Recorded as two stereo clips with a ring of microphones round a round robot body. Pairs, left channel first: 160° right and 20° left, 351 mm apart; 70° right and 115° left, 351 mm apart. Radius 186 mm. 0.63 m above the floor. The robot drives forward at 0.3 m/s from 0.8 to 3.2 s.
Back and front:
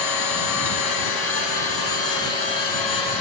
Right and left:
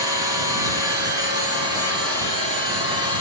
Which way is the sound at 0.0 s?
170° right.